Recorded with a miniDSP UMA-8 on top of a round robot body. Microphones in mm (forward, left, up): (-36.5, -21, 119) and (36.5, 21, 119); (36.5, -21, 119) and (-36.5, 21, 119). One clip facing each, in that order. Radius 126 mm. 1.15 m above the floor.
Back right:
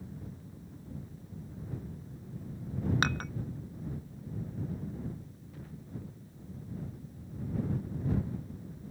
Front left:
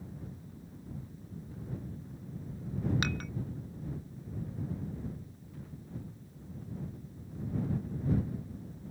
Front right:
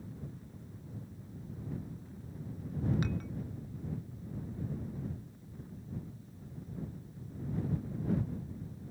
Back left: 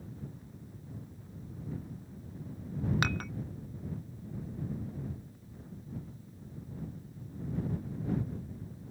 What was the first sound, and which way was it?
Dishes clattering, 160° left.